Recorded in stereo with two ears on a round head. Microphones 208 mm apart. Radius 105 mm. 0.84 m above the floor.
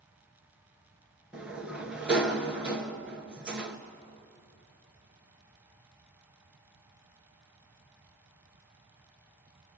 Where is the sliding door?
5° right (ahead or behind), 1.8 m.